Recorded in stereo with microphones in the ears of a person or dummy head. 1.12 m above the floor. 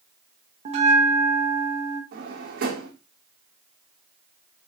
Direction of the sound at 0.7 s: 40° right (ahead or behind).